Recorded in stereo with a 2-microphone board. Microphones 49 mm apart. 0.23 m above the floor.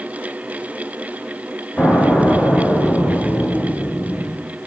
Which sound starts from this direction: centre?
An explosion, at 1.8 s.